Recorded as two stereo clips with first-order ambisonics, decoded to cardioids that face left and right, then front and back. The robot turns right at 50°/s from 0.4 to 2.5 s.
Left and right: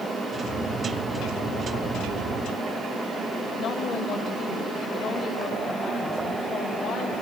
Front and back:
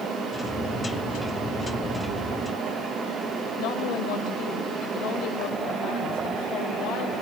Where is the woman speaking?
20° left, 5.5 m.